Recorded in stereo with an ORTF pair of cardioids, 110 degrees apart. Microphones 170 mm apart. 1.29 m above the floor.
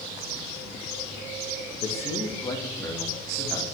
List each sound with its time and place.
1.8 s a man speaking: 45° left, 1.1 m; by 3.6 s 5° left, 2.5 m